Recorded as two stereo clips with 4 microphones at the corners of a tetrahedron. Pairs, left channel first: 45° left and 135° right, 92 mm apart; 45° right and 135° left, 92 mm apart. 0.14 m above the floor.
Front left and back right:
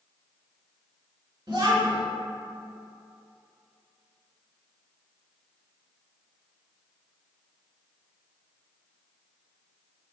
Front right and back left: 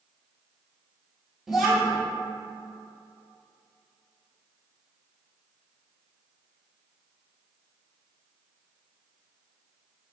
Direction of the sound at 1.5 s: 140° right.